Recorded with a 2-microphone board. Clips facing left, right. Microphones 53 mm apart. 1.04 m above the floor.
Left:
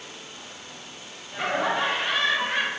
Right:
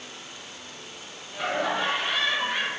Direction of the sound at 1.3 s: 65° left (ahead or behind).